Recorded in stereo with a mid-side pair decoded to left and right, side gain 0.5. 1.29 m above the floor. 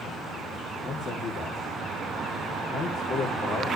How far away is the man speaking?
About 3 m.